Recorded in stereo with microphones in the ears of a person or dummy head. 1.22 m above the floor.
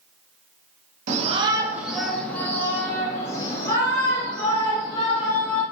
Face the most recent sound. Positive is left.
turn(degrees=35)  # may be behind; listen again after turning